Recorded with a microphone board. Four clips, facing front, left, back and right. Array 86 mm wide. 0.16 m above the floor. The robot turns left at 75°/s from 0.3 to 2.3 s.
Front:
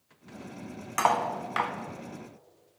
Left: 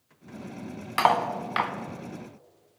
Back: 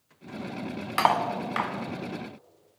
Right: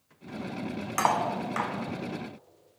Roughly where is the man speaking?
No man speaking in this recording.